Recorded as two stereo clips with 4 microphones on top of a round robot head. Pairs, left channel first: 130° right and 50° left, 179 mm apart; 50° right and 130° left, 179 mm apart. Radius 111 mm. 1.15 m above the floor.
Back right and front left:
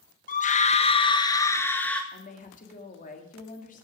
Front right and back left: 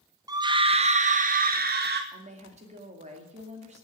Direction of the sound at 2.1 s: 175° right.